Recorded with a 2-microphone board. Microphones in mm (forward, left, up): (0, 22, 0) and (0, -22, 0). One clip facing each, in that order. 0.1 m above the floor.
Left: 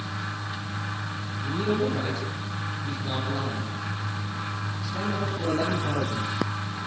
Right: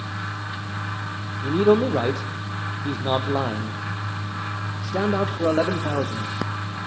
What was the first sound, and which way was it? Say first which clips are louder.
A man speaking: right 8 dB; 65° right (ahead or behind).